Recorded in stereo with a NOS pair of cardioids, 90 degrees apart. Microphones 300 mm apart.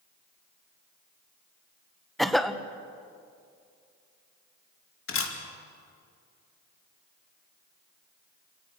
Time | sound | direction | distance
2.2 | a cough | straight ahead | 1.4 m
5.1 | a camera shutter | 45° left | 3 m